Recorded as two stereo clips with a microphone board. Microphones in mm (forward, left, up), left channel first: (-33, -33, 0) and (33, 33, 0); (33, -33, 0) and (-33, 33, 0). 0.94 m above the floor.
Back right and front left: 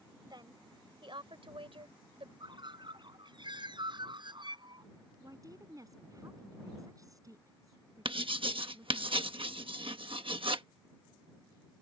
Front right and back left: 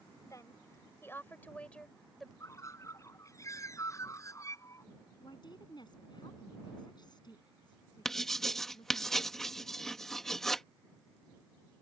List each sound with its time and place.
0.2 s a woman speaking: 5° left; by 2.3 s 45° left
2.4 s a bird: 10° left
5.2 s a woman speaking: 5° right
8.1 s writing: 40° left